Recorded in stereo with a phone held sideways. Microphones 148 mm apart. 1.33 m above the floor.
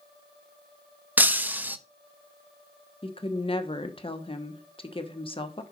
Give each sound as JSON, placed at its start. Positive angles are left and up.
{"t": 1.2, "sound": "breaking glass", "side_deg": -10, "distance_m": 0.6}
{"t": 3.0, "sound": "a woman speaking", "side_deg": 35, "distance_m": 1.1}